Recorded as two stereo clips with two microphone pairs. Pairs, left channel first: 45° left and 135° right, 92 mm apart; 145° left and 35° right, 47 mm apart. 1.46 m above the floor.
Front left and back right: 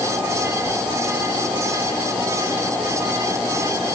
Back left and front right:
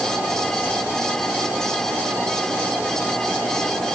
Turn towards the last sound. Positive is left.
No sound to turn to.